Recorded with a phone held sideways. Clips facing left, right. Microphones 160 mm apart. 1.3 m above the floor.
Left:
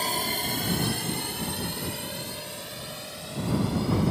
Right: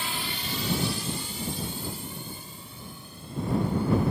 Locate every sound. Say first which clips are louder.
0.0 s a drone: left 5 dB; 40° left (ahead or behind); by 4.1 s 80° left